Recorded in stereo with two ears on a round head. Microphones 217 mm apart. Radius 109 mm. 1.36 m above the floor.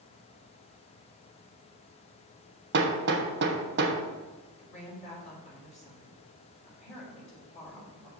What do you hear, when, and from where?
2.7 s hammering: 45° right (ahead or behind), 1.2 m
4.6 s a woman speaking: 30° left (ahead or behind), 3.5 m